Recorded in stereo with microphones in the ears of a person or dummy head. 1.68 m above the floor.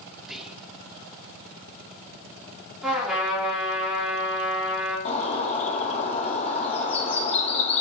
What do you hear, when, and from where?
0.2 s whispering: 5° right (ahead or behind), 0.8 m
2.8 s a trumpet: 5° right (ahead or behind), 2.5 m
5.0 s a bird: 35° left (ahead or behind), 1.1 m